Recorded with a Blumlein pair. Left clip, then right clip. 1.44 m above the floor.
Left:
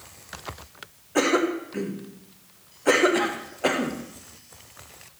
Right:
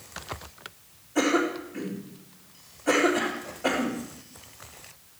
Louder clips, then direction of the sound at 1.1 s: Left 2 dB; 40° left.